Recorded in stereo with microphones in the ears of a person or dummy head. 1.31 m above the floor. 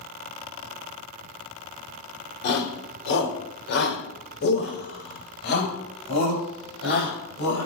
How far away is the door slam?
I don't hear a door slam.